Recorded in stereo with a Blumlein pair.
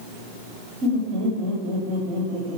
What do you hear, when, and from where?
0.8 s laughter: 40° right, 1.2 m